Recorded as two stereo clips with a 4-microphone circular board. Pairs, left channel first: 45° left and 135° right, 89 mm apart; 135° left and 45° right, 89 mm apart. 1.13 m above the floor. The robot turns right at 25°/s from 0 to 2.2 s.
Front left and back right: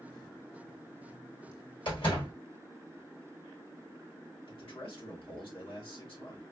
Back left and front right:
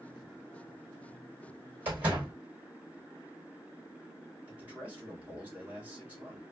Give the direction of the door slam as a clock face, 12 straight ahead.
11 o'clock.